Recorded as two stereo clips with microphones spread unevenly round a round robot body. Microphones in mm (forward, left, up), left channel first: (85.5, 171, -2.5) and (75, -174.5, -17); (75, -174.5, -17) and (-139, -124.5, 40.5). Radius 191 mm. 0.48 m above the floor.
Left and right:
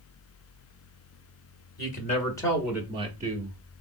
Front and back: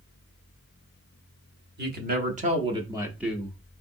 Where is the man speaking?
135° left, 0.9 m; by 3.6 s 70° right, 0.9 m.